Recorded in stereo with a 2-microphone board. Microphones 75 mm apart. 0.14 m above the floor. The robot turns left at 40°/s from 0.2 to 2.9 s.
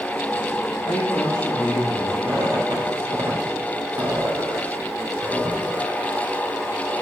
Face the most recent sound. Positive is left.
turn(degrees=-80)